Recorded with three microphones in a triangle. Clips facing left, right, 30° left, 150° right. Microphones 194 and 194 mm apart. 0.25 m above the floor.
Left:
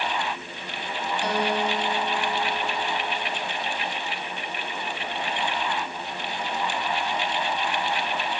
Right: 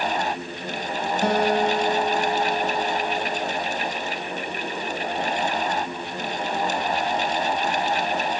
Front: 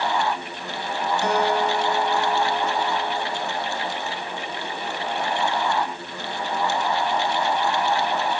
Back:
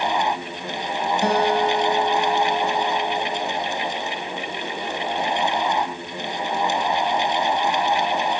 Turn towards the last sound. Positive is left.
turn(degrees=-105)